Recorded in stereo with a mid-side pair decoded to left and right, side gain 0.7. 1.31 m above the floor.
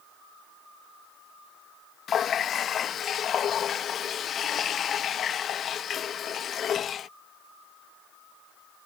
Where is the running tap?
40° left.